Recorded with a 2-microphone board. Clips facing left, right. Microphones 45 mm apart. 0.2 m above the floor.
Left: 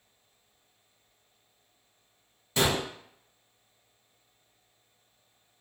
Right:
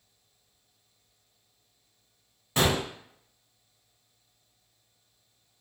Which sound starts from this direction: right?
A gunshot, at 2.6 s.